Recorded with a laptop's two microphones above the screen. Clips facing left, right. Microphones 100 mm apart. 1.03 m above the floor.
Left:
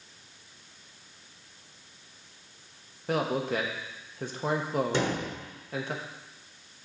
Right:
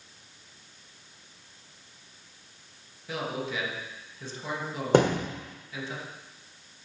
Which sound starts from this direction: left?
A man speaking, at 3.1 s.